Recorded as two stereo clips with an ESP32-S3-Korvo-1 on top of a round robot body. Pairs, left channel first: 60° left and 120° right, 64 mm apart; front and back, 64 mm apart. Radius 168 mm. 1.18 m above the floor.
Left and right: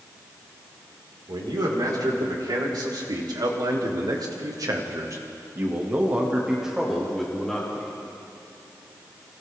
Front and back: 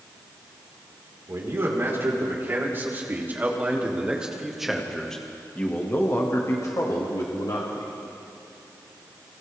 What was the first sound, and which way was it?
A man speaking, 130° right.